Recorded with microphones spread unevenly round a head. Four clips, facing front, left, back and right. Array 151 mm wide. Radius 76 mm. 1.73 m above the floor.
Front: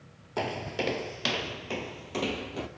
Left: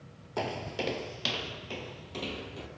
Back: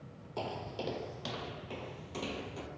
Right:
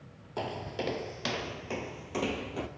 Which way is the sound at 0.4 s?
30° left.